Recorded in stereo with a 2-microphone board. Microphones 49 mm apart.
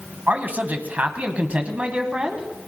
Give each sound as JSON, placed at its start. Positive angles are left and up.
{"t": 0.3, "sound": "a man speaking", "side_deg": -40, "distance_m": 1.3}